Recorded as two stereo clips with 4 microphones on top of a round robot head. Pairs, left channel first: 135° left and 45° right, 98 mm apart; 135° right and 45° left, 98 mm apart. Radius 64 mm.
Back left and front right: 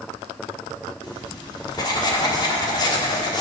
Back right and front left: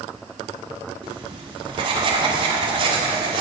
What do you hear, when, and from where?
1.0 s writing: 90° left, 1.4 m